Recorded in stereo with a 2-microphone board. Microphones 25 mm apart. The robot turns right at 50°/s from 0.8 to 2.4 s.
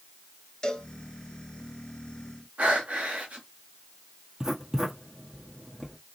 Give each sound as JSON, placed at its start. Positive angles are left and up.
{"t": 0.6, "sound": "a cowbell", "side_deg": 35, "distance_m": 1.1}
{"t": 2.6, "sound": "breathing", "side_deg": -80, "distance_m": 1.9}
{"t": 4.4, "sound": "writing", "side_deg": -35, "distance_m": 1.6}